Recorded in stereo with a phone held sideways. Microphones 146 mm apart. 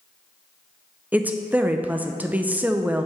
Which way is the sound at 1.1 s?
10° right (ahead or behind).